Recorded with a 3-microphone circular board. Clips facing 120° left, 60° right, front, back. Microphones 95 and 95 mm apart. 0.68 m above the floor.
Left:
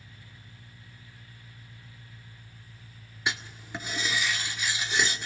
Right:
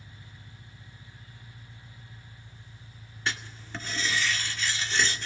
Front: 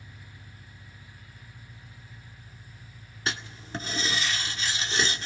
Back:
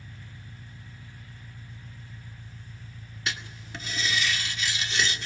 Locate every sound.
0.0 s an engine running: 145° right, 2.0 m
3.3 s writing: 45° left, 1.9 m